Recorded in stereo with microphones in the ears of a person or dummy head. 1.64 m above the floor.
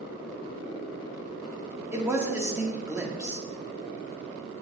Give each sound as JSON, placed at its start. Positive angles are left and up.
{"t": 1.9, "sound": "a man speaking", "side_deg": -15, "distance_m": 0.6}